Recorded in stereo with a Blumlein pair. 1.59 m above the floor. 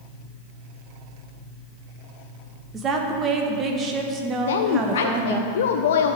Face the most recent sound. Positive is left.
turn(degrees=60)